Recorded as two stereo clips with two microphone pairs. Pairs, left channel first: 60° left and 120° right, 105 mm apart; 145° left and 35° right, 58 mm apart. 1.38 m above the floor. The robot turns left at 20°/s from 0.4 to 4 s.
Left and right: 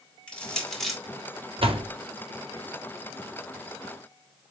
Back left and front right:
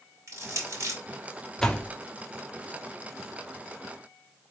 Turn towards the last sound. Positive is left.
turn(degrees=175)